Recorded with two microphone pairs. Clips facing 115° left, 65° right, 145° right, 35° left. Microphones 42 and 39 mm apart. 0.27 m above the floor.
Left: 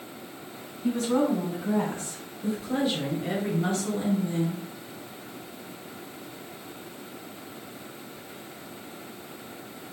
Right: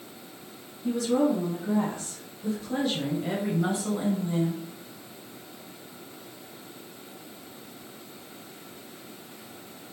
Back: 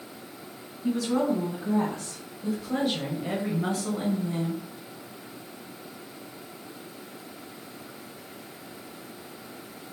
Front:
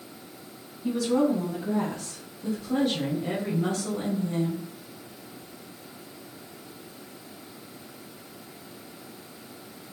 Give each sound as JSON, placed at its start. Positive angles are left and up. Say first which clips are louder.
{"t": 0.8, "sound": "a woman speaking", "louder": "even, front 2 dB", "azimuth_deg": 125, "distance_m": 2.5}